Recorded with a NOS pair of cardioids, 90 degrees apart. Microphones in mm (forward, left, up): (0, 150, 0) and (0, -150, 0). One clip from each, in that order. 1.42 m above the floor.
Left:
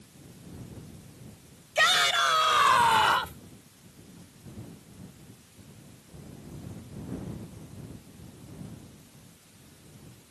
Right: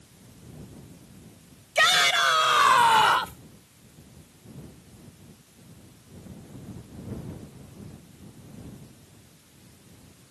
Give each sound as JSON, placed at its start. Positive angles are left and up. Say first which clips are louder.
{"t": 1.8, "sound": "a shout", "louder": "right 3 dB", "azimuth_deg": -25}